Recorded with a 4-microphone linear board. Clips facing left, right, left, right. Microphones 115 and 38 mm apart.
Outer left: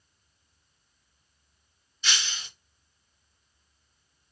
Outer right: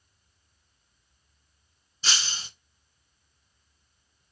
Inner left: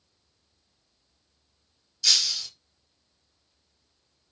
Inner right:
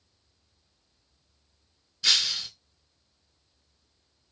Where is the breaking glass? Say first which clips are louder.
Even, inner right 1 dB; 35° right (ahead or behind), 0.6 m.